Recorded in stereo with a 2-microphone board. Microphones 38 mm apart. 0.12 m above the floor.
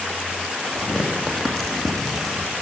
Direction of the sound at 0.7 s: 5° left (ahead or behind).